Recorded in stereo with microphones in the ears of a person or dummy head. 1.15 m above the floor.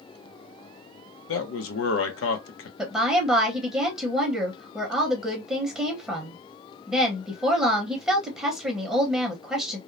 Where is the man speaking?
65° left (ahead or behind), 0.7 m.